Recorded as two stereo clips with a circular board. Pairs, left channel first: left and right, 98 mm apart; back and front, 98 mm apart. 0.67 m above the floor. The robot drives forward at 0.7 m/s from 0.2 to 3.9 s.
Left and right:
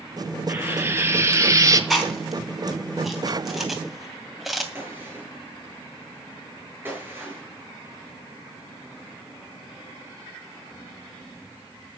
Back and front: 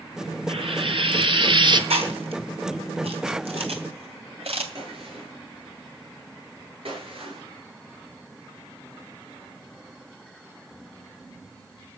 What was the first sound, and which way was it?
Frying, 25° right.